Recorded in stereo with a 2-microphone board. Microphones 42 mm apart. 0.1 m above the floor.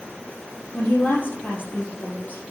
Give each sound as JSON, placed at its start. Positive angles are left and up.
{"t": 0.7, "sound": "a woman speaking", "side_deg": 50, "distance_m": 2.5}